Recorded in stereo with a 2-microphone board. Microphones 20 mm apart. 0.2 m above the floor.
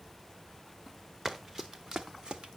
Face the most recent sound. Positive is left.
turn(degrees=-60)  # may be behind; listen again after turning